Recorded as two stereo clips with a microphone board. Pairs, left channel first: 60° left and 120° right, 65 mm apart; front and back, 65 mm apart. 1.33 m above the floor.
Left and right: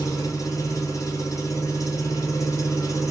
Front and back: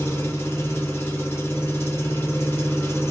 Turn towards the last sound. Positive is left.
turn(degrees=45)